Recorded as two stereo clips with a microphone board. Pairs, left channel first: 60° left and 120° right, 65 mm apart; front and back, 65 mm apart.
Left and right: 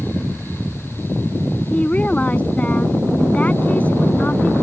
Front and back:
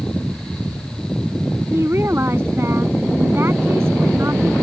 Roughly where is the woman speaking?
Behind left.